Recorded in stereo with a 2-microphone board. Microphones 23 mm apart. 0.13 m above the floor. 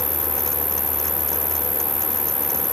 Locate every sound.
0.0 s an insect: 5° right (ahead or behind)